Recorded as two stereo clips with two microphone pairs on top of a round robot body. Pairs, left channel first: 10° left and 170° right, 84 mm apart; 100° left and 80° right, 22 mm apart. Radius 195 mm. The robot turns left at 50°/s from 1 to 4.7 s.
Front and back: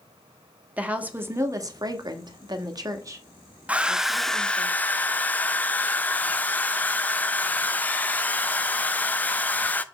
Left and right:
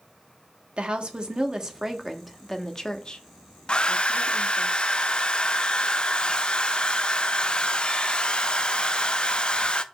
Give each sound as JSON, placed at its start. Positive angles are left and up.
{"t": 0.8, "sound": "a woman speaking", "azimuth_deg": -105, "distance_m": 1.3}
{"t": 3.7, "sound": "a hair dryer", "azimuth_deg": 130, "distance_m": 0.6}